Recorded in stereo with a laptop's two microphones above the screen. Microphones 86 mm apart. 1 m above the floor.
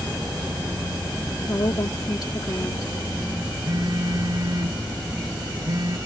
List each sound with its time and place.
1.5 s a woman speaking: 55° left (ahead or behind)
3.6 s a phone buzzing: 45° right (ahead or behind)